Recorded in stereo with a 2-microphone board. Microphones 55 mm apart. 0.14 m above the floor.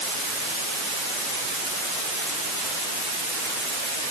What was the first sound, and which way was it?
Only background noise.